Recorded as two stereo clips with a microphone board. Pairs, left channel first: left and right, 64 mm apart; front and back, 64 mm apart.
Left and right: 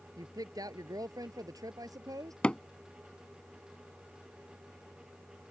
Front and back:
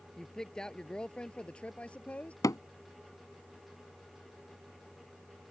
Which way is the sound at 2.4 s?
20° left.